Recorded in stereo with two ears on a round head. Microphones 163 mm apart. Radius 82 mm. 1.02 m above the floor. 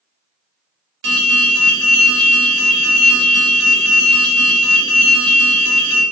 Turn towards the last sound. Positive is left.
turn(degrees=-70)  # may be behind; listen again after turning